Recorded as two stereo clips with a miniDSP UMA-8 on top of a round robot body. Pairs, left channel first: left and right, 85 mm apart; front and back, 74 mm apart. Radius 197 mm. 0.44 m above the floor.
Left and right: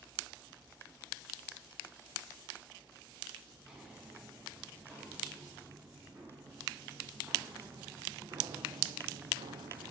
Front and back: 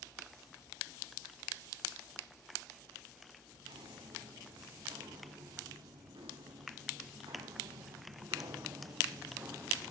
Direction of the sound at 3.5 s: 170° right.